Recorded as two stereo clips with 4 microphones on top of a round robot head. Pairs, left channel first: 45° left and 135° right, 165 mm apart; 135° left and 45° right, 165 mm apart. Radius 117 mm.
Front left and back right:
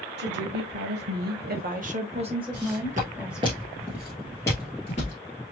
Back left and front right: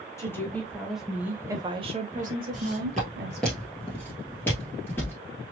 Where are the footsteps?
135° right, 1.6 m; by 5.2 s 65° left, 1.5 m.